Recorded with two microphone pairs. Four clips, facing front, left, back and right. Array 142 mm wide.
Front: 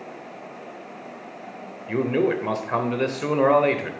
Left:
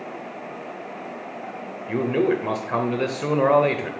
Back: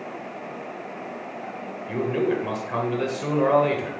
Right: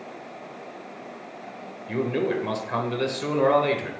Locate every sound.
1.9 s a man speaking: 40° left, 0.9 m